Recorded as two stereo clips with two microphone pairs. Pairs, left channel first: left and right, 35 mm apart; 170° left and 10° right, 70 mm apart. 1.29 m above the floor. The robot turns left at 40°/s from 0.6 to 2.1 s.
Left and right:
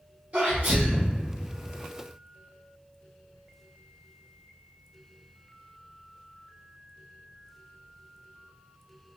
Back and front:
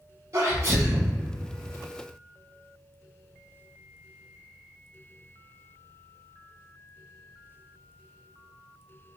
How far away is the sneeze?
About 1.1 m.